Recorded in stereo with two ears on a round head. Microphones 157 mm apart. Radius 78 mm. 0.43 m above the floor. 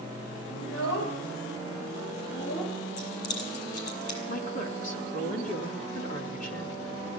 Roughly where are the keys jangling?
Left.